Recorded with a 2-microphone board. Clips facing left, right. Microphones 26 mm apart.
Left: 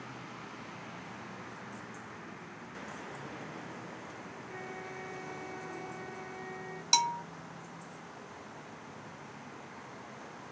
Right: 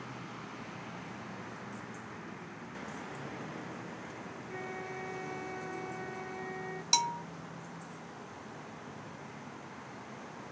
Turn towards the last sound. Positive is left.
turn(degrees=10)  # may be behind; listen again after turning